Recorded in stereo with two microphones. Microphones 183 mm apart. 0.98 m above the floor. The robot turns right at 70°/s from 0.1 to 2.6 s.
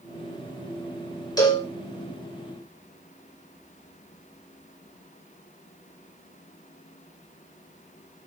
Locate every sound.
1.4 s a cowbell: 20° left (ahead or behind), 2.5 m; by 1.7 s 40° left (ahead or behind), 2.5 m